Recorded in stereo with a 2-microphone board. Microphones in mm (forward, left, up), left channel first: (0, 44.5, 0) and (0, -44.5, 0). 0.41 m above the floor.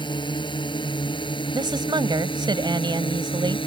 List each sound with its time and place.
0.0 s a drone: 60° left (ahead or behind); by 3.7 s 75° left (ahead or behind)
1.5 s a woman speaking: 60° right (ahead or behind)